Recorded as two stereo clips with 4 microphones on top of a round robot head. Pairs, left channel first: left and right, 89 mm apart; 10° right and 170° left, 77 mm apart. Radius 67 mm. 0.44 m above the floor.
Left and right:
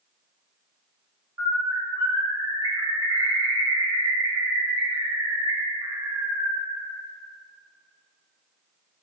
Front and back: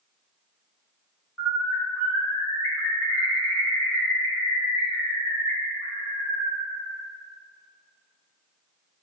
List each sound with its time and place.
1.4 s a bird: 75° right, 1.3 m